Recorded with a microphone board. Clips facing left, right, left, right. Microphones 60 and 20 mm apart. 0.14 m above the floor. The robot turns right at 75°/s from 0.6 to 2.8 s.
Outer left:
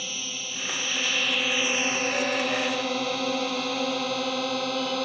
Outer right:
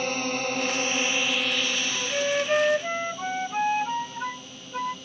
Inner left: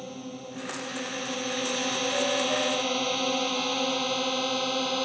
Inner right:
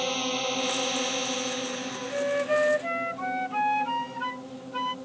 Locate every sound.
0.0 s a drone: 50° right (ahead or behind); by 5.0 s 70° left (ahead or behind)
1.9 s a flute: 175° left; by 5.0 s 120° right